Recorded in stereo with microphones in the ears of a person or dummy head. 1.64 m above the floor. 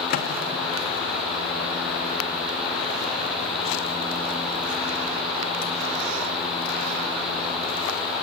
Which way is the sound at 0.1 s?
50° left (ahead or behind).